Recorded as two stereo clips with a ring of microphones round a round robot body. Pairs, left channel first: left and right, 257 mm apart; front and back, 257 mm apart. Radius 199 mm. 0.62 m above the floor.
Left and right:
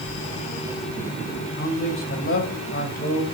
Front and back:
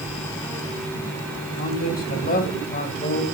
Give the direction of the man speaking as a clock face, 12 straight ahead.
10 o'clock.